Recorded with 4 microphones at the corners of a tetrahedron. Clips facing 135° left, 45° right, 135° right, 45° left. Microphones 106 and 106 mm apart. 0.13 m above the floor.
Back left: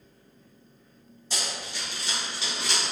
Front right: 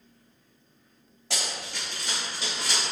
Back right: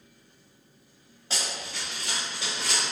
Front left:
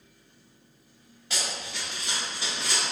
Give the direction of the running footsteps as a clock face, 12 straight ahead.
2 o'clock.